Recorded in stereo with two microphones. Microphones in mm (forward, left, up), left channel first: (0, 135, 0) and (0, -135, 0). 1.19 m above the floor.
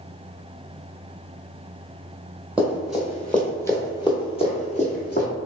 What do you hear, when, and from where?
2.6 s running footsteps: 5° right (ahead or behind), 1.5 m; by 5.3 s 35° left (ahead or behind), 1.4 m